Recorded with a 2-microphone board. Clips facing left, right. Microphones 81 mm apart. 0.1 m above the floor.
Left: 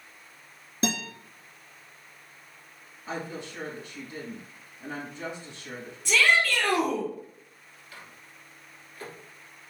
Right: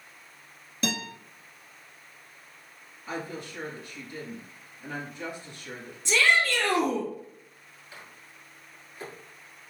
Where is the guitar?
30° left (ahead or behind), 1.5 m.